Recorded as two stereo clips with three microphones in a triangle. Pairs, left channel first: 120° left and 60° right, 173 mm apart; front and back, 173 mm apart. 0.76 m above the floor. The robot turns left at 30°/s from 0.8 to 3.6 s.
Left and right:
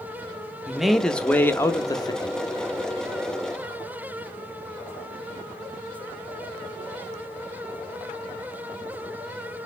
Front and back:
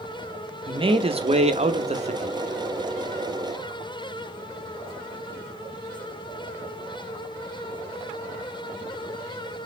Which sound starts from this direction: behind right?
A man speaking, at 0.7 s.